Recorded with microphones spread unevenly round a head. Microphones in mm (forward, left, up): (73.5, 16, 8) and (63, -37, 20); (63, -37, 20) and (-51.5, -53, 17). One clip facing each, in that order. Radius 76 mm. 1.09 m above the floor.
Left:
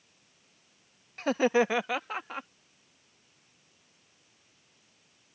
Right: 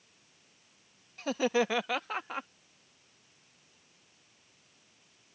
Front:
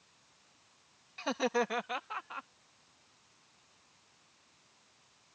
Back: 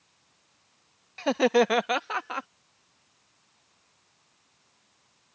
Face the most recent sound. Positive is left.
turn(degrees=175)